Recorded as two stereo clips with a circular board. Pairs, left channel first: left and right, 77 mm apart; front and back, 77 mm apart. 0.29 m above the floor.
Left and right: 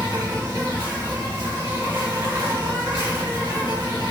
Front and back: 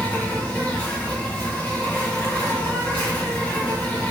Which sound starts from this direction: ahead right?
An insect, at 0.0 s.